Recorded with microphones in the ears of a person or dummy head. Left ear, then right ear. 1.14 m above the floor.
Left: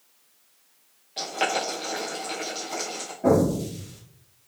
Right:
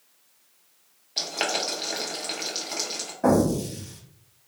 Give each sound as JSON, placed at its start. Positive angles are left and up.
{"t": 1.2, "sound": "boiling", "side_deg": -20, "distance_m": 0.7}
{"t": 3.2, "sound": "an explosion", "side_deg": -40, "distance_m": 0.9}